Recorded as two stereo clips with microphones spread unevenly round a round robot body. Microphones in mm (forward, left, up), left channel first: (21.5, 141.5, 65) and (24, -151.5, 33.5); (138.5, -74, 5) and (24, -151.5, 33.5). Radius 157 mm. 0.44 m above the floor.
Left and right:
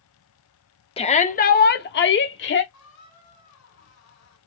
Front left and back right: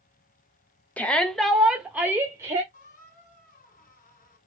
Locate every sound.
1.0 s a shout: 35° left, 0.7 m; by 2.6 s 135° left, 1.0 m
2.7 s a squeak: 50° left, 2.5 m